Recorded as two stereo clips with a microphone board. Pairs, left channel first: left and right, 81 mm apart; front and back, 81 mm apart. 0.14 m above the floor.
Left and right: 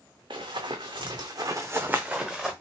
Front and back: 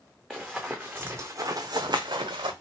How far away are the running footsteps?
About 0.9 m.